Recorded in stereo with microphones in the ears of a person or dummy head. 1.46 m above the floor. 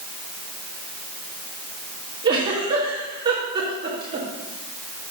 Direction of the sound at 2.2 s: 30° right (ahead or behind).